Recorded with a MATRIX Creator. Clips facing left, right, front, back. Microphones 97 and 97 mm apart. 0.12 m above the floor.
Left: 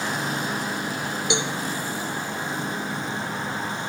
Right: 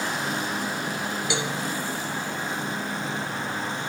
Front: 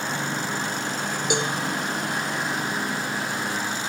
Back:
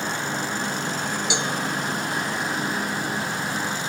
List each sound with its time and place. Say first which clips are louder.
1.3 s a cowbell: left 3 dB, front 5 dB; 25° left, 1.9 m